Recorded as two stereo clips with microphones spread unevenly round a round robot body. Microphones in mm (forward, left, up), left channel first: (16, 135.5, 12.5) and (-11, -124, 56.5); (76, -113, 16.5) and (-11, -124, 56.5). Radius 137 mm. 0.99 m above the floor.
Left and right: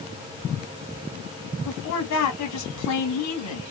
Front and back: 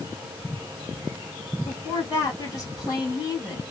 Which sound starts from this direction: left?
A woman speaking, at 1.6 s.